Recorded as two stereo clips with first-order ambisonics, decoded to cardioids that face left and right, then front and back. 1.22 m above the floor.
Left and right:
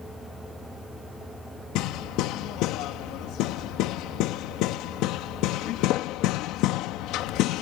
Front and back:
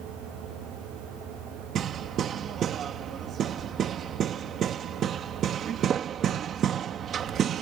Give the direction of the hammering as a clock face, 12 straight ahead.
8 o'clock.